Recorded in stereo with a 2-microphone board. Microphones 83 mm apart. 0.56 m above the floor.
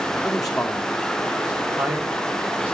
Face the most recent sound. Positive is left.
turn(degrees=-25)  # may be behind; listen again after turning